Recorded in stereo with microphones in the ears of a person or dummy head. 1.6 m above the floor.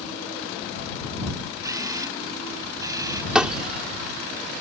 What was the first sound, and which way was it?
A camera shutter, 20° right (ahead or behind).